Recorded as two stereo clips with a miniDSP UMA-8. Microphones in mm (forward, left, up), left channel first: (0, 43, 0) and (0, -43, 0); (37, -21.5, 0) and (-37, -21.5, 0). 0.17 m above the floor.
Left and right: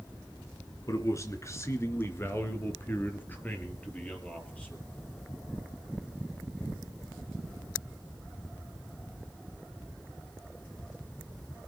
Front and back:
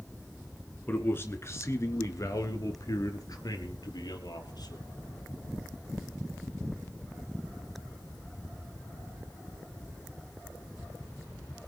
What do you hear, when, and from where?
0.9 s a man speaking: 55° left, 2.5 m; by 4.8 s 15° left, 5 m